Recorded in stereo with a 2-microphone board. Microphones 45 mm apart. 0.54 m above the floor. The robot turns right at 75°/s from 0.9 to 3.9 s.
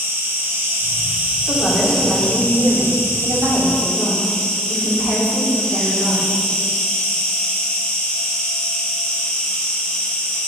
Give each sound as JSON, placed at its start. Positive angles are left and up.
{"t": 0.0, "sound": "an insect", "azimuth_deg": -65, "distance_m": 1.7}
{"t": 1.5, "sound": "a woman speaking", "azimuth_deg": 95, "distance_m": 1.6}